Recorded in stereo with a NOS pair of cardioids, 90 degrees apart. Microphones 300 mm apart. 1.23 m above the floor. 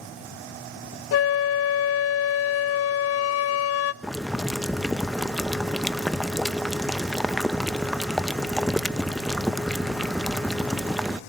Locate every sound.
1.1 s a flute: 55° left, 0.7 m
4.0 s boiling: straight ahead, 0.7 m